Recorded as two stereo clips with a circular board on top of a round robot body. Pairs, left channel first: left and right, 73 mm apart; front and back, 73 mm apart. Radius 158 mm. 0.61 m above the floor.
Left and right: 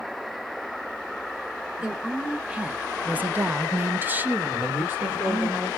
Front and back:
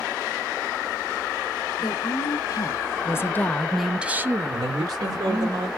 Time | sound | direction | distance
1.8 | a woman speaking | 15° right | 1.4 m
4.5 | a man speaking | 155° right | 2.5 m